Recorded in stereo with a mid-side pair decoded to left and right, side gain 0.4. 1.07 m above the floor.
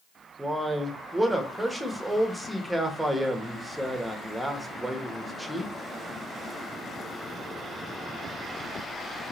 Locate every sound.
0.4 s a man speaking: 10° right, 1.3 m